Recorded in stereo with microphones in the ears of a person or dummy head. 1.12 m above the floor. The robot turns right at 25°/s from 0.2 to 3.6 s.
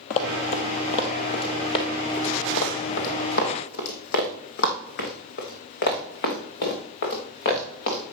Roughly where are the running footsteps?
Left.